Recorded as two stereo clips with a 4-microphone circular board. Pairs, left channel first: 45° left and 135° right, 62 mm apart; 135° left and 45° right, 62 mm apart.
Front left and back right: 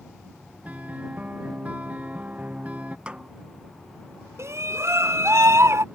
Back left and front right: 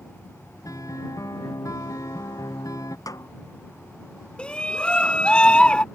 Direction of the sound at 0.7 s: 160° left.